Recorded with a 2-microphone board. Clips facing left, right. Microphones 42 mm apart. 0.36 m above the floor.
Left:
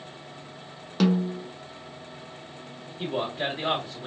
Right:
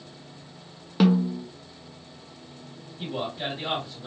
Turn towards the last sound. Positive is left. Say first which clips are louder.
# left 2 dB
turn(degrees=35)  # may be behind; listen again after turning